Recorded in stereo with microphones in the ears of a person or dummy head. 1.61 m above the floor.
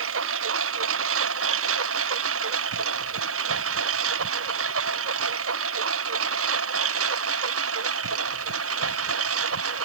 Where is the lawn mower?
85° right; by 9.9 s 80° right.